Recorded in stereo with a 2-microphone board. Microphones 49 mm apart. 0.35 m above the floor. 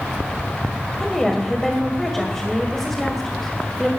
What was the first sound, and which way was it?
A woman speaking, 5° left (ahead or behind).